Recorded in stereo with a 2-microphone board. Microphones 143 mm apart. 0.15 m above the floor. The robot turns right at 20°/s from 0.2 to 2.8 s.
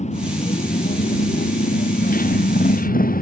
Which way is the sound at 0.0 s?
55° left (ahead or behind).